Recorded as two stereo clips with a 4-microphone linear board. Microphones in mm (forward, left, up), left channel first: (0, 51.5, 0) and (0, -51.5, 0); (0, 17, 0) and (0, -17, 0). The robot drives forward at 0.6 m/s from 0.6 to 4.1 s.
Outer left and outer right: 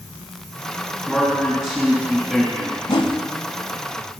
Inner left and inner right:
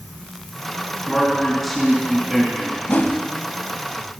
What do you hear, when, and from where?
1.1 s a man speaking: 5° right (ahead or behind), 3 m
2.9 s a whoosh: 50° left (ahead or behind), 0.5 m